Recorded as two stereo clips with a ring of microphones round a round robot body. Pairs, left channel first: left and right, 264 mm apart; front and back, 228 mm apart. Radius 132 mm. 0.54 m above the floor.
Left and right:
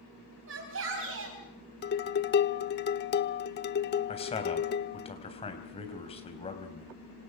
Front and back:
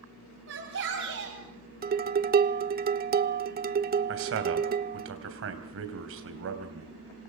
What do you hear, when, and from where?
0.5 s a shout: 130° right, 3.5 m
1.8 s dishes clattering: 135° left, 1.0 m
4.1 s a man speaking: 160° left, 4 m